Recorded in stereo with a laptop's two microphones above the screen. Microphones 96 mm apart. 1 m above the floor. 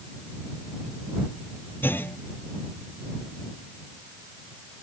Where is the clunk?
20° left (ahead or behind).